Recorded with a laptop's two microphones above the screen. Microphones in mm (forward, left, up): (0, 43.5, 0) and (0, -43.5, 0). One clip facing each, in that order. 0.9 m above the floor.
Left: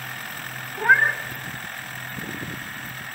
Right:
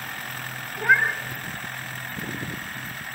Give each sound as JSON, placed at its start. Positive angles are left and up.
{"t": 0.8, "sound": "a cat meowing", "side_deg": 40, "distance_m": 2.5}